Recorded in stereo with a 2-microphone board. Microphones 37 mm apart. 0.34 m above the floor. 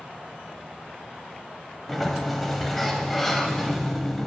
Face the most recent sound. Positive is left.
turn(degrees=5)  # may be behind; listen again after turning